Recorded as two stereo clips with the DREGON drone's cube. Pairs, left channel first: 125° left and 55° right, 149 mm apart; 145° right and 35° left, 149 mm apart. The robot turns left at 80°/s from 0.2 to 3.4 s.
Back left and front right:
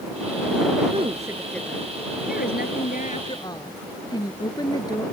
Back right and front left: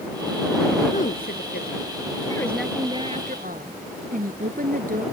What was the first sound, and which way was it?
A woman speaking, 100° right.